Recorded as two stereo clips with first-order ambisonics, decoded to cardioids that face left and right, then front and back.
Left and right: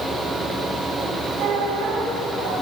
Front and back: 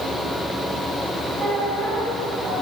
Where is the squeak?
120° right, 4.5 m.